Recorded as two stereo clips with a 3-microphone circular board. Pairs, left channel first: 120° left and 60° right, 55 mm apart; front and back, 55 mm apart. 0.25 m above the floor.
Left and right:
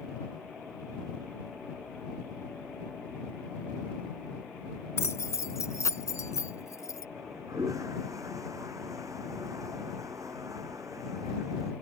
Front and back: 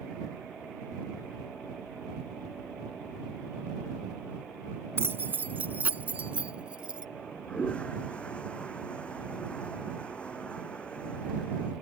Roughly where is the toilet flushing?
Right.